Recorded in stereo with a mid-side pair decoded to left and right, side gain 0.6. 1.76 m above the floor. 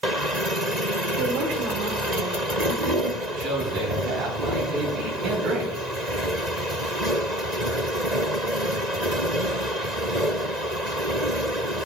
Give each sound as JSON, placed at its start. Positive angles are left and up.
{"t": 1.2, "sound": "a woman speaking", "azimuth_deg": -65, "distance_m": 1.9}
{"t": 3.2, "sound": "a man speaking", "azimuth_deg": -60, "distance_m": 4.0}